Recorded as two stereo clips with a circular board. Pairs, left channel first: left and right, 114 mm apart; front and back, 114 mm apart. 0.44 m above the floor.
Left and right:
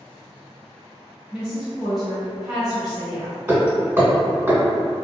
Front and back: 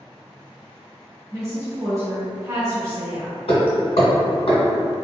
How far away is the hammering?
About 1.4 m.